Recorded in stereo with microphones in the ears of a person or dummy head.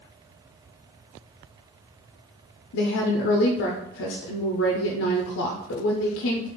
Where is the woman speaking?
70° left (ahead or behind), 0.5 m.